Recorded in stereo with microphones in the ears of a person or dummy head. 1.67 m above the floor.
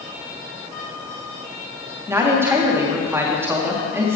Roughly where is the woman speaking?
Centre.